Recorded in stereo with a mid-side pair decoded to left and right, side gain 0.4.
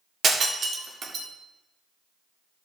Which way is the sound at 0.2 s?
55° right.